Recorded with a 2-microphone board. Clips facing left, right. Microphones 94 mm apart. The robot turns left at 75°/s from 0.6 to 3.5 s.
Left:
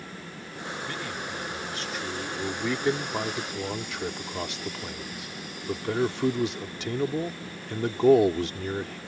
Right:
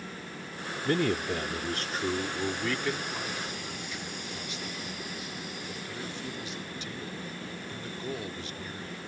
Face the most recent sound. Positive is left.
turn(degrees=105)